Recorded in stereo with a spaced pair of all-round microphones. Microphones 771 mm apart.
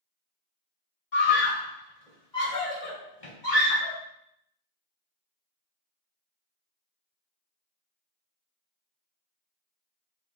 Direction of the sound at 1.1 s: 75° left (ahead or behind).